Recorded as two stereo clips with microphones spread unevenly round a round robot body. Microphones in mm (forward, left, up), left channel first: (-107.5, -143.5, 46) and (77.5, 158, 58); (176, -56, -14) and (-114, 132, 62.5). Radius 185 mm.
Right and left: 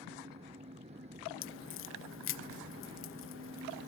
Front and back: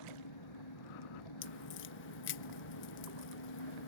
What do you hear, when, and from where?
0.0 s an engine running: 15° right
1.4 s a crack: 75° right